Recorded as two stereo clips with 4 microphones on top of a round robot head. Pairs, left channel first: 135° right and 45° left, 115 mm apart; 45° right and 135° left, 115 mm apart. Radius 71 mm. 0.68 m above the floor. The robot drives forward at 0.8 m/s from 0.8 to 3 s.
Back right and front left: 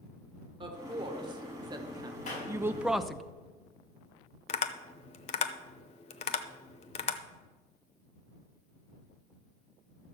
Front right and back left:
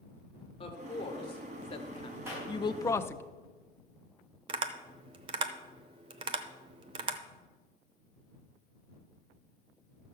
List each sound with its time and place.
0.6 s a woman speaking: 5° right, 1.9 m; by 3.2 s 45° right, 0.5 m
2.3 s a clap: 155° right, 4.5 m
4.5 s tapping: 175° right, 0.7 m